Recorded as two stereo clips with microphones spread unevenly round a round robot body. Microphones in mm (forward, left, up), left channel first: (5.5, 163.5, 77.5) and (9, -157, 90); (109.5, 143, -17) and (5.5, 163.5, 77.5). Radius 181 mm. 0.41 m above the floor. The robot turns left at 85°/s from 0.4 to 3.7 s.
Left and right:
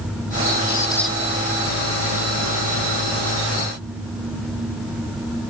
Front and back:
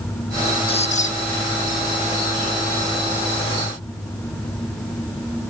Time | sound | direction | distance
0.7 | a squeak | 30° left | ?